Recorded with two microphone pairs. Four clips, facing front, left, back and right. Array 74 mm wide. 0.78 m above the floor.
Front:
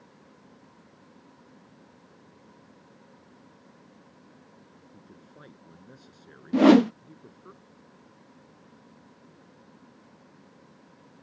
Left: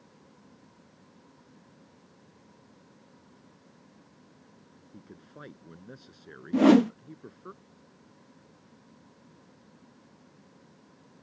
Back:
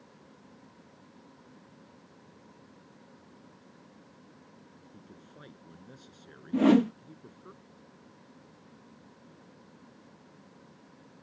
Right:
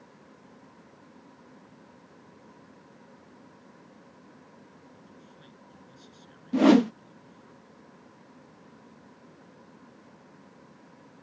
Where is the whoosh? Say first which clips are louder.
Even, front 6 dB; 5° right.